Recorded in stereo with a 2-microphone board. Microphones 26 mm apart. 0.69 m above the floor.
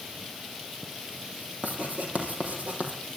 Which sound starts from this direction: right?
Writing, at 1.6 s.